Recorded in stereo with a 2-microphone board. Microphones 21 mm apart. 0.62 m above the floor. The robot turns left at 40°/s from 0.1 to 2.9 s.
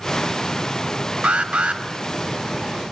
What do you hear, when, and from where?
1.2 s an alarm: 70° right (ahead or behind), 2.5 m; by 1.8 s 75° right (ahead or behind), 2.5 m